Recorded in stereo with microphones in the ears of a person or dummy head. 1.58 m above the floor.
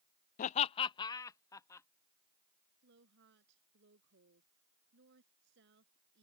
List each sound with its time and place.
0.4 s laughter: 50° left (ahead or behind); by 1.9 s 20° left (ahead or behind)
2.8 s a woman speaking: 55° right (ahead or behind)